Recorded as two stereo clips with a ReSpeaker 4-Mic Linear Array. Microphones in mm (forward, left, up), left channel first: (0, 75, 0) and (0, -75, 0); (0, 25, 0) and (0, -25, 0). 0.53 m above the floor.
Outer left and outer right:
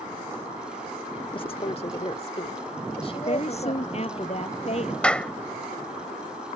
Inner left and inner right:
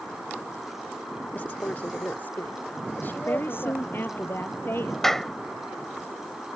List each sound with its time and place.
1.3 s a woman speaking: 35° left (ahead or behind); by 4.3 s 40° left (ahead or behind)
3.3 s a woman speaking: 45° left (ahead or behind)
5.0 s a clap: 10° left (ahead or behind)